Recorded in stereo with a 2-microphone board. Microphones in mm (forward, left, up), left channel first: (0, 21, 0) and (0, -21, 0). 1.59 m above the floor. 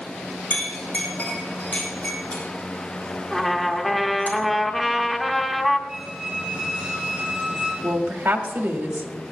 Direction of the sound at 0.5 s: 40° left (ahead or behind).